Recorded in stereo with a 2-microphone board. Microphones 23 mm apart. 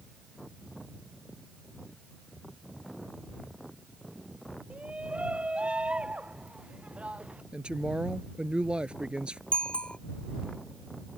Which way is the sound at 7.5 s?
50° right (ahead or behind).